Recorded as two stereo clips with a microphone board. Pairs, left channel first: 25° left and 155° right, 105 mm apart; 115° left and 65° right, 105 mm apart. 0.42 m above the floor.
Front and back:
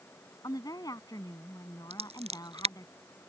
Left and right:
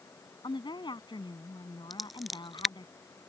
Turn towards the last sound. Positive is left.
turn(degrees=-155)